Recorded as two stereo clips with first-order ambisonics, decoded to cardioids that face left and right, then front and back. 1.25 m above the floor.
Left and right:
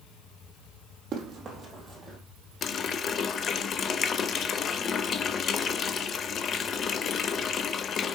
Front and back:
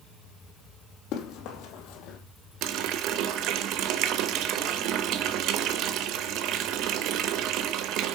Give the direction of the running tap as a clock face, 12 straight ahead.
7 o'clock.